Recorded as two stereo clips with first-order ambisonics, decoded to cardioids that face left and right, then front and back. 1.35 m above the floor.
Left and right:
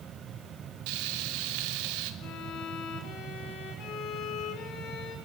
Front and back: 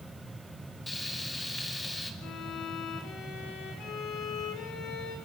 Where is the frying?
80° right, 2 m.